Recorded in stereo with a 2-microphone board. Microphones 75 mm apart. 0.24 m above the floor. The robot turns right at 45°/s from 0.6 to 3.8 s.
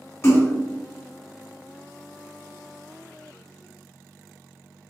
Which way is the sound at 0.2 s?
35° left (ahead or behind).